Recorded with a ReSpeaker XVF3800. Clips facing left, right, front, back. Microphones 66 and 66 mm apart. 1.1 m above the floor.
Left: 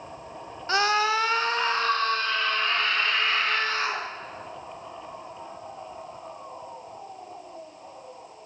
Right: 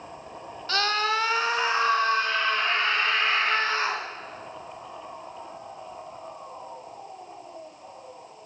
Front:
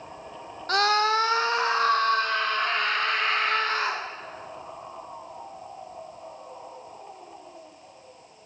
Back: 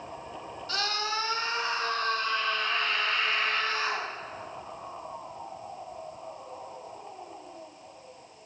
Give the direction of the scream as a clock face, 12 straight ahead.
11 o'clock.